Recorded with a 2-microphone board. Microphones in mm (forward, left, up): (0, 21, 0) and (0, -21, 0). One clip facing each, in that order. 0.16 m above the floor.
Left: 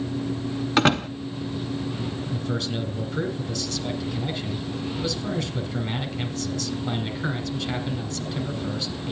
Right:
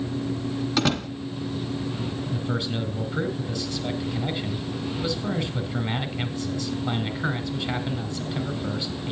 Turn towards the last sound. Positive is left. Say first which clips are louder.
# even
turn(degrees=-15)  # may be behind; listen again after turning